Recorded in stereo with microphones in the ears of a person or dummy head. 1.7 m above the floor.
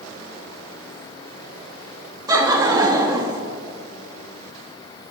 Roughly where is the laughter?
Right.